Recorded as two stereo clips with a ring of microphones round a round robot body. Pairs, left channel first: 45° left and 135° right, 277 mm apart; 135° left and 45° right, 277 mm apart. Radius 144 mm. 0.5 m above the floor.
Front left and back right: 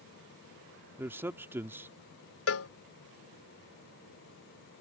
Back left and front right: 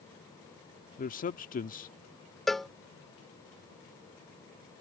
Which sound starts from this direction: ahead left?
A cowbell, at 2.5 s.